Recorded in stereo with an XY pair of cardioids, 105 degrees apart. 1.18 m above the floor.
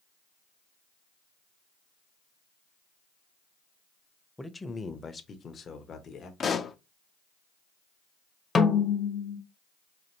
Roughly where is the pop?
Ahead left.